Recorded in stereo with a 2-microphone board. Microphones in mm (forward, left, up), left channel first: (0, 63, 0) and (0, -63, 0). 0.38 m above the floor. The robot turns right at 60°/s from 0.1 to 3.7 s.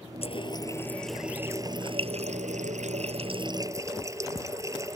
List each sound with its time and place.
0.2 s a running tap: 125° left; by 5.0 s 25° right